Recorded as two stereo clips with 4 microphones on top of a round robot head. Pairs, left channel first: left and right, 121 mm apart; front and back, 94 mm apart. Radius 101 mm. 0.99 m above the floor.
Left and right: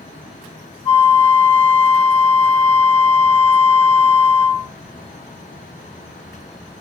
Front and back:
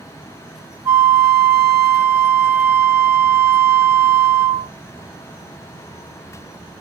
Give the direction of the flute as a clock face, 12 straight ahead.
8 o'clock.